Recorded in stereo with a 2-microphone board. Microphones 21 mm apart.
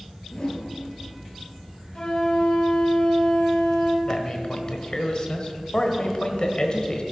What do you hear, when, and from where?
0.3 s a whoosh: 45° left (ahead or behind), 1.7 m
1.9 s a flute: 45° left (ahead or behind), 1.7 m
4.0 s a man speaking: 40° left (ahead or behind), 1.2 m